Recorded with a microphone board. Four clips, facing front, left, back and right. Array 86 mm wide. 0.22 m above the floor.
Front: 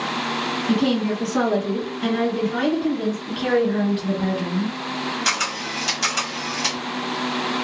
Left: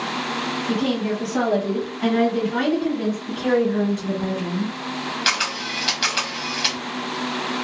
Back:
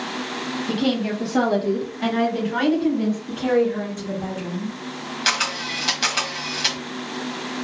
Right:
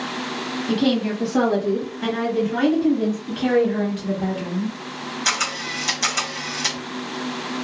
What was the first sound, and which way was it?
A woman speaking, 115° right.